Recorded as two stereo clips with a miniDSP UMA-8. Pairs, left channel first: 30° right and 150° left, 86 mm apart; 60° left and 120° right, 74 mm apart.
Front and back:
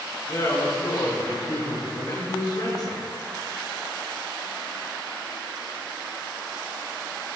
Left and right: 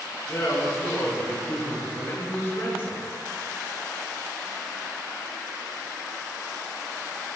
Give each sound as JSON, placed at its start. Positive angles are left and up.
{"t": 0.3, "sound": "a man speaking", "azimuth_deg": 15, "distance_m": 5.5}